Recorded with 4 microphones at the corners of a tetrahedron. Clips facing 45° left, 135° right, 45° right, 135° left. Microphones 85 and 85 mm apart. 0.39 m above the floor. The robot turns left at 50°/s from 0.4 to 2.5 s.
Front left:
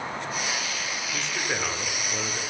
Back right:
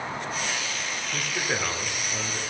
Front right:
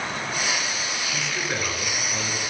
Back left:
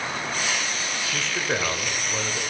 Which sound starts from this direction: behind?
A man speaking, at 1.1 s.